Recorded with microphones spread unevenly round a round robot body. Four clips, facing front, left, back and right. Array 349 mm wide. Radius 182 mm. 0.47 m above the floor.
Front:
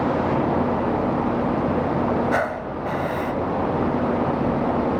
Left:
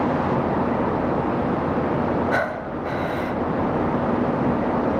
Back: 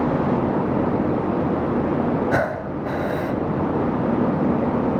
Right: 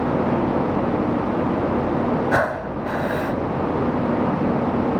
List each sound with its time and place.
2.3 s breathing: 150° right